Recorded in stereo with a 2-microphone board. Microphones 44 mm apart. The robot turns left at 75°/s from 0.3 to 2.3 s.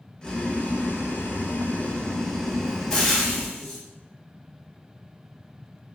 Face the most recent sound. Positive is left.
turn(degrees=10)  # may be behind; listen again after turning